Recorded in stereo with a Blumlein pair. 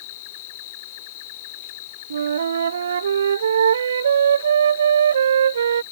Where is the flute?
65° right.